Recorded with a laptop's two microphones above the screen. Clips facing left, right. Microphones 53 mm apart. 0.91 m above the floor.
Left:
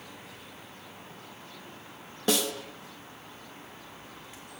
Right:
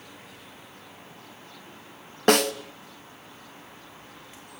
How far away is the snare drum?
About 1.3 m.